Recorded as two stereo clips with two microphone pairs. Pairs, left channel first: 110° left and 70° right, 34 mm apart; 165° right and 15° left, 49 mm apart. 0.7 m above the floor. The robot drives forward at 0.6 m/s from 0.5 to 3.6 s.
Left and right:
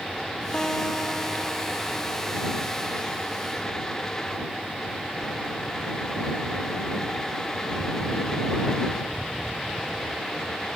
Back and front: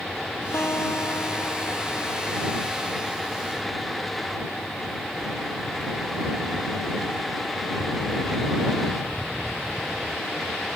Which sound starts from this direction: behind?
A guitar, at 0.5 s.